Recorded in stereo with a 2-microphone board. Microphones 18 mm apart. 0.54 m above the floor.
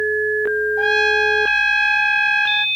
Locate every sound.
0.8 s a trumpet: 15° left (ahead or behind), 0.7 m